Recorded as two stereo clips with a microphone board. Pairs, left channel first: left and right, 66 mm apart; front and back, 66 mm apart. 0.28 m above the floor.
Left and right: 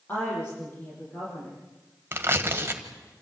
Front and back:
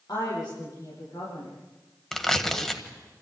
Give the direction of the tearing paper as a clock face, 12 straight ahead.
3 o'clock.